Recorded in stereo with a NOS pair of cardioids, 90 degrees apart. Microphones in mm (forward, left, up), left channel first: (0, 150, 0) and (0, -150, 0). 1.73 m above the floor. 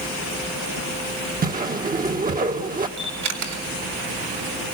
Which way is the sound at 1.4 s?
30° right.